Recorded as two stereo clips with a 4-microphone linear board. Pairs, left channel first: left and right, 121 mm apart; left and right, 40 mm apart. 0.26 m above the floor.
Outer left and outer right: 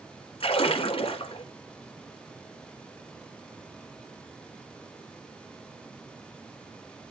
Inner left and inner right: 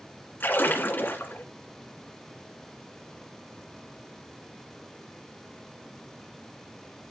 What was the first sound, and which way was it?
A splash, 50° left (ahead or behind).